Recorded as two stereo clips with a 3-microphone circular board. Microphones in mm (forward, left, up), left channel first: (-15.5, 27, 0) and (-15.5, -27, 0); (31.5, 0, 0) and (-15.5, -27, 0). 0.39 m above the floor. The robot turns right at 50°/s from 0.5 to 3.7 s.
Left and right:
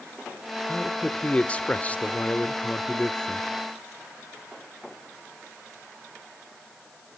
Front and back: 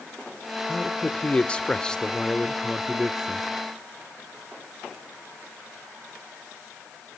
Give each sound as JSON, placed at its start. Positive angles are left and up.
{"t": 0.7, "sound": "a man speaking", "azimuth_deg": 20, "distance_m": 0.8}